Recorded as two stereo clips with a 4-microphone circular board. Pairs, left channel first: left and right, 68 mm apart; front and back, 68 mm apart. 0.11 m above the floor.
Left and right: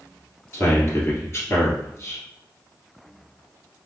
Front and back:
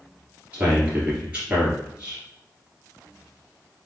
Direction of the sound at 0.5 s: 110° left.